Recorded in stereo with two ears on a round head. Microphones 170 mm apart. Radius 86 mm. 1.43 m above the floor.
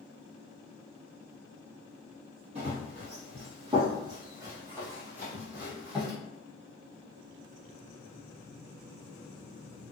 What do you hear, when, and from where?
2.5 s running footsteps: 35° right (ahead or behind), 1.7 m; by 6.1 s centre (ahead or behind), 2 m